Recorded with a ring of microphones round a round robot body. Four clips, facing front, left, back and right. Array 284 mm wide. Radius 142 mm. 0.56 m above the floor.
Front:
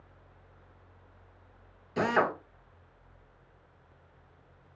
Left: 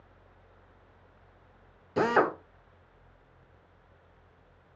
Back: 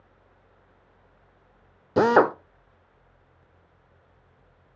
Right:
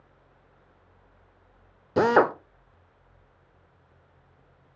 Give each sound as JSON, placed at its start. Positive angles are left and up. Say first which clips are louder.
{"t": 2.0, "sound": "a drill", "louder": "right 5 dB, back 9 dB", "azimuth_deg": -150, "distance_m": 1.0}